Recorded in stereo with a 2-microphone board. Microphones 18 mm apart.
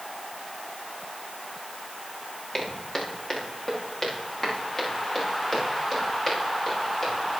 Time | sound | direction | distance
2.5 | footsteps | 25° left (ahead or behind) | 6.5 m